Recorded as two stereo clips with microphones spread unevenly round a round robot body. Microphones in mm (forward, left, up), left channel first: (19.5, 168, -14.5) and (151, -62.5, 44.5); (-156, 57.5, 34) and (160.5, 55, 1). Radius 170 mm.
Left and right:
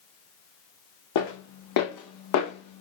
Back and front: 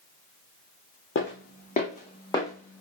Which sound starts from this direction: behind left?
Footsteps, at 1.1 s.